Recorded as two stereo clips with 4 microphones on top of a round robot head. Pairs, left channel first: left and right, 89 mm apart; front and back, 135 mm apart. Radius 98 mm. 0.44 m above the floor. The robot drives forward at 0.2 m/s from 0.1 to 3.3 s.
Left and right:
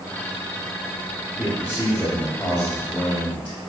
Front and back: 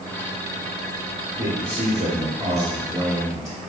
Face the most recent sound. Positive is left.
turn(degrees=-165)